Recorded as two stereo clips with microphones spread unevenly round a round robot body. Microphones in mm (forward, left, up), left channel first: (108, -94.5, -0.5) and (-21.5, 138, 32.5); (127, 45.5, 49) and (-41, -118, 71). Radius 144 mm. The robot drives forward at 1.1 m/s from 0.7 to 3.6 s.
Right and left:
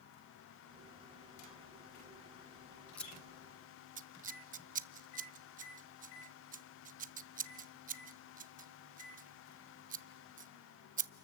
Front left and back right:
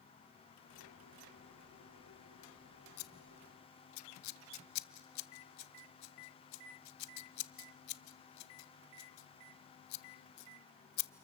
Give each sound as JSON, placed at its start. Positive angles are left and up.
{"t": 3.0, "sound": "scissors", "azimuth_deg": 25, "distance_m": 1.0}